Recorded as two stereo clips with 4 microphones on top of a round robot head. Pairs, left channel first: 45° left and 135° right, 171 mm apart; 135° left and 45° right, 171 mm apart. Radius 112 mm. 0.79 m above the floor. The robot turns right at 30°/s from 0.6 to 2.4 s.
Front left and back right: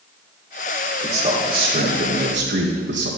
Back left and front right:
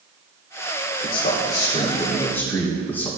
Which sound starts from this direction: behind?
A man speaking, at 1.0 s.